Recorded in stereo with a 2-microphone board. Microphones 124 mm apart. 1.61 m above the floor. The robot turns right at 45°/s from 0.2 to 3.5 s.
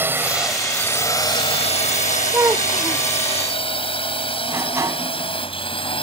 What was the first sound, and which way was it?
A drone, 15° right (ahead or behind).